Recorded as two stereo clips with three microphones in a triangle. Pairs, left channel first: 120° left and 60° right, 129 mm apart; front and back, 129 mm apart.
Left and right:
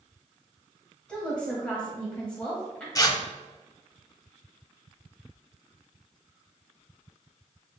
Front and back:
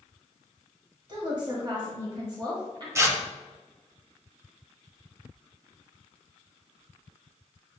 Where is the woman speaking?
165° right, 1.4 m.